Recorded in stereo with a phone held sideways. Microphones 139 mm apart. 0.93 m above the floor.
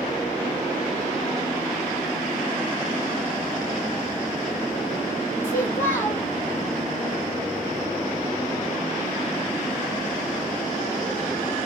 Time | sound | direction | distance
5.4 | a child speaking | 15° left (ahead or behind) | 2.5 m